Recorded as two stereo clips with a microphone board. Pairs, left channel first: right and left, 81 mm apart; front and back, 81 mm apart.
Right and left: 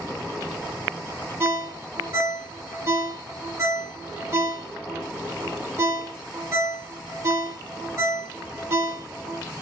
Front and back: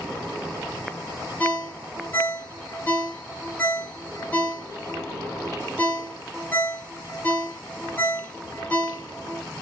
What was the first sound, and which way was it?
A ringtone, 55° left.